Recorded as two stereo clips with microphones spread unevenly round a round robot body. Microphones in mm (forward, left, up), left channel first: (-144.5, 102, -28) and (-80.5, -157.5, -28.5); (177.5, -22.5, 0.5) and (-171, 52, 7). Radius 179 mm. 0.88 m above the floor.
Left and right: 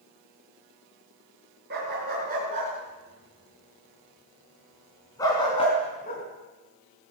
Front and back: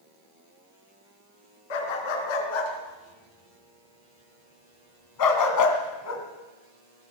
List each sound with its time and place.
1.7 s a dog barking: 15° right, 4.5 m; by 6.2 s 40° left, 3 m